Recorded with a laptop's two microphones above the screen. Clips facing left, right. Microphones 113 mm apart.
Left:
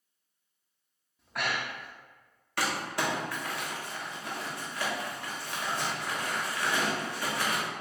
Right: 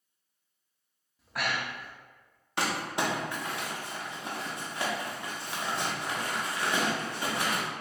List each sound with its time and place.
1.2 s breathing: centre (ahead or behind), 0.5 m
2.6 s crumpling: 20° right (ahead or behind), 0.8 m